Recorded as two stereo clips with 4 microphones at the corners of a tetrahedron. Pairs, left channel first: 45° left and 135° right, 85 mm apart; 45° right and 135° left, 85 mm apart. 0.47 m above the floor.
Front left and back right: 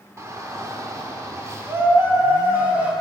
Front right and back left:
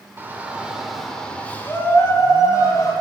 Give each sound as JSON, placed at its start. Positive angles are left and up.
{"t": 0.2, "sound": "a shout", "azimuth_deg": -175, "distance_m": 1.2}